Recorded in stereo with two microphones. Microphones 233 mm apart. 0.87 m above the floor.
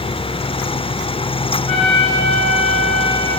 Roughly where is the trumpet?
Right.